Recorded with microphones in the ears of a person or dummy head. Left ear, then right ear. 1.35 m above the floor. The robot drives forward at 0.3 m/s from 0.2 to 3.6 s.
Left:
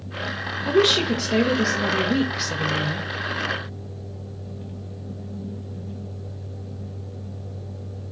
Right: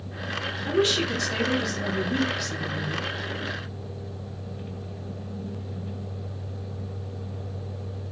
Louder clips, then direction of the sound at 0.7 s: Left 5 dB; 40° left (ahead or behind).